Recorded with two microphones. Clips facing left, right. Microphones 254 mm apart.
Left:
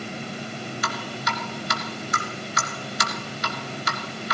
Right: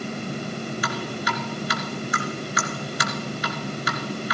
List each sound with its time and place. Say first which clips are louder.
0.8 s dripping: right 3 dB; 50° left (ahead or behind), 2 m